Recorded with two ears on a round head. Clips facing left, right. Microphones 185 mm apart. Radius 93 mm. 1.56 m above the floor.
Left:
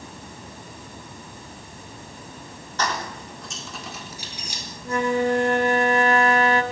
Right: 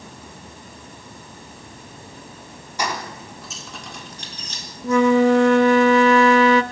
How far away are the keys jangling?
About 3.5 m.